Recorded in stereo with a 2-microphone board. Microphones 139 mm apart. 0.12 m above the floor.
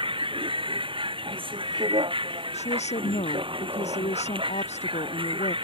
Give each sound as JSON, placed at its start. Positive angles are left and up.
{"t": 0.0, "sound": "a vehicle", "side_deg": -40}
{"t": 2.5, "sound": "a woman speaking", "side_deg": 55}